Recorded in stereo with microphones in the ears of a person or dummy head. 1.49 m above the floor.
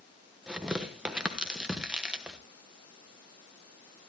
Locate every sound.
0.5 s tearing paper: 5° right (ahead or behind), 1.3 m